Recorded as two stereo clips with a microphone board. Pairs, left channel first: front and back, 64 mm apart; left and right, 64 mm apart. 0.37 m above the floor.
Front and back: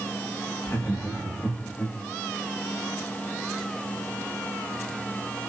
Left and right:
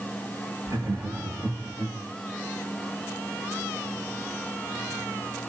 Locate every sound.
0.7 s laughter: 55° right, 7 m